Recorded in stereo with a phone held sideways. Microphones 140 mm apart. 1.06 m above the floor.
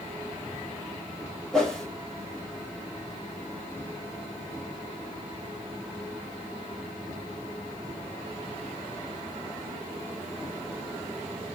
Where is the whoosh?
5° left (ahead or behind), 1.4 m.